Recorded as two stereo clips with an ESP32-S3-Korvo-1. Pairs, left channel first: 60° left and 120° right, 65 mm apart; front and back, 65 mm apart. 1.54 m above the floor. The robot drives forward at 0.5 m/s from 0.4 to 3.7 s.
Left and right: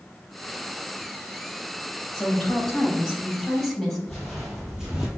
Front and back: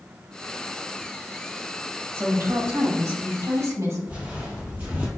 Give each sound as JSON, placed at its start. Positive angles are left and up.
{"t": 2.1, "sound": "a woman speaking", "azimuth_deg": 140, "distance_m": 1.8}
{"t": 4.1, "sound": "footsteps", "azimuth_deg": 140, "distance_m": 1.7}